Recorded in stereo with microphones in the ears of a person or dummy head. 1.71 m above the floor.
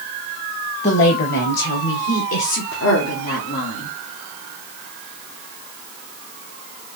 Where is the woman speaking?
35° left (ahead or behind), 1.0 m; by 4.0 s 80° left, 2.5 m.